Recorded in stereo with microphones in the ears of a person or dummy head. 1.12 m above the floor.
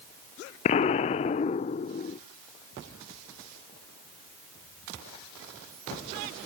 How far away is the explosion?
About 0.6 m.